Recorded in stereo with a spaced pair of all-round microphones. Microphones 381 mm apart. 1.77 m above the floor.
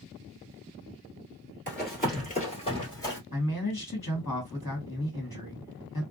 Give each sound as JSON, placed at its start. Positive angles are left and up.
{"t": 1.7, "sound": "running footsteps", "side_deg": 30, "distance_m": 2.0}
{"t": 3.3, "sound": "a man speaking", "side_deg": 55, "distance_m": 1.8}